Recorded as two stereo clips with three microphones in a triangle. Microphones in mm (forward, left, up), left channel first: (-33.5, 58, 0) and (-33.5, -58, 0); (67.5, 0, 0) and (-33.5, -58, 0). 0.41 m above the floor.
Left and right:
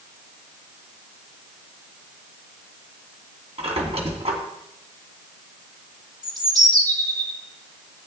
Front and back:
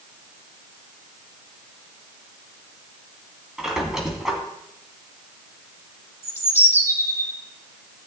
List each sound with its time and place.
3.6 s a squeak: 65° right, 2.5 m
6.2 s a bird: 40° right, 2.5 m